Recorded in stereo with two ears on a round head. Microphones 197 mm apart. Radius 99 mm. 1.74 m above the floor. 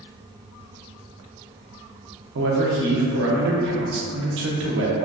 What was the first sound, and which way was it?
A man speaking, 60° right (ahead or behind).